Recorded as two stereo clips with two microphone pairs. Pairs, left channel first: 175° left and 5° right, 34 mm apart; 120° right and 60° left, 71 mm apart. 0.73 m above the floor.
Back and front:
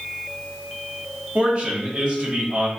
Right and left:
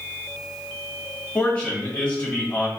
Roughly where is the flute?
I don't hear a flute.